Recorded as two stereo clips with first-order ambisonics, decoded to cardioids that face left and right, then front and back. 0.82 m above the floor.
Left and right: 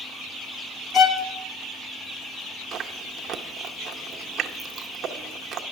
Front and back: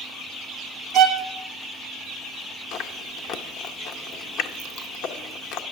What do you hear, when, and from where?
0.9 s a violin: 145° left, 0.8 m
2.7 s chewing: 35° right, 0.6 m